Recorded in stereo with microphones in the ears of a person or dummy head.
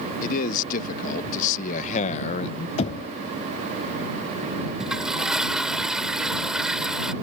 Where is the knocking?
35° left (ahead or behind).